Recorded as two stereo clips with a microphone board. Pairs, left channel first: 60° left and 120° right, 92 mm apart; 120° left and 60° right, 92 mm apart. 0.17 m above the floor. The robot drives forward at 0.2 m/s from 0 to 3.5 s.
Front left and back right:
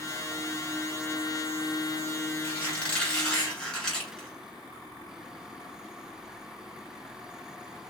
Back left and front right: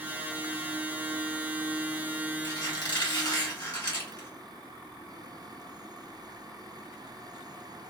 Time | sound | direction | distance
2.4 | a squeak | 130° left | 1.4 m